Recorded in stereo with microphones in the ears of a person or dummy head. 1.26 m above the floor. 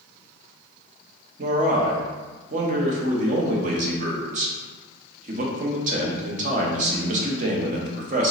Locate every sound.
1.4 s a man speaking: 45° right (ahead or behind), 0.7 m